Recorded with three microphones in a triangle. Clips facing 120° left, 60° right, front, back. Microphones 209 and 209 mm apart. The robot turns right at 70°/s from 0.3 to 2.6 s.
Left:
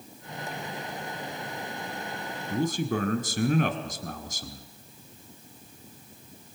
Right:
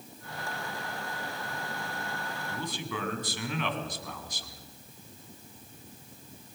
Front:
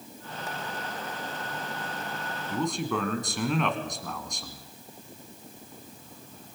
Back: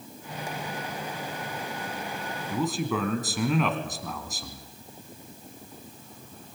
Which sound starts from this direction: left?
A man speaking, at 2.5 s.